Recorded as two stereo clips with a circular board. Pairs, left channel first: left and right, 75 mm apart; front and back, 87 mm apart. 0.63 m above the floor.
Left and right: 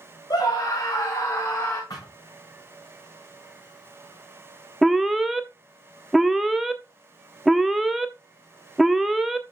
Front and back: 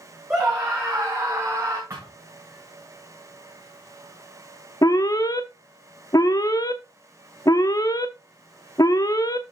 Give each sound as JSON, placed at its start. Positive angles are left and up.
{"t": 0.3, "sound": "a scream", "azimuth_deg": 110, "distance_m": 2.5}
{"t": 1.9, "sound": "a thud", "azimuth_deg": 130, "distance_m": 5.5}
{"t": 4.8, "sound": "an alarm", "azimuth_deg": -5, "distance_m": 0.8}